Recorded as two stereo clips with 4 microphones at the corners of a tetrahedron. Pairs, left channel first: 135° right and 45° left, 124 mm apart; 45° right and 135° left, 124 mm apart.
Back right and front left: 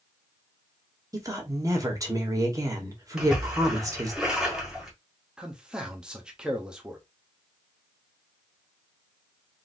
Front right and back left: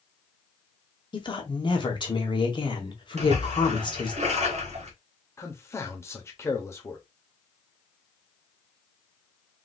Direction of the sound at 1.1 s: 10° right.